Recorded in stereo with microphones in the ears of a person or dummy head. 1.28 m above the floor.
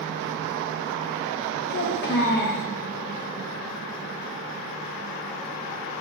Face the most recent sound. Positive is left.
turn(degrees=60)  # may be behind; listen again after turning